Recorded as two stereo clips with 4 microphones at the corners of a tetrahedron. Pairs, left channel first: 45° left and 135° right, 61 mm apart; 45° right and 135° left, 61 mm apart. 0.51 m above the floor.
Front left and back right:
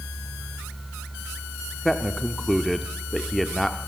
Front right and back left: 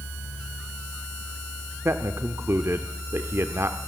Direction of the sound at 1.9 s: 130° left.